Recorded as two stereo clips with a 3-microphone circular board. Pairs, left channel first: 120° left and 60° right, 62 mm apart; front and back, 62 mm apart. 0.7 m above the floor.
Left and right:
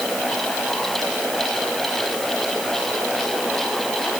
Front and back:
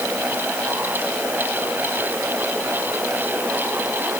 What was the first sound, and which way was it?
Only background noise.